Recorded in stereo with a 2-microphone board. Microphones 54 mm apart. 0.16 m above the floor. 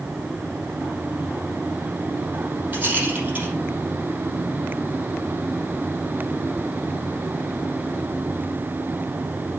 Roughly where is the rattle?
Right.